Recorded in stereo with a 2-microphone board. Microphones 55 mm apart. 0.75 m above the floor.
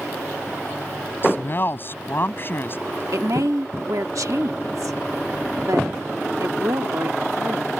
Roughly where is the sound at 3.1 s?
Right.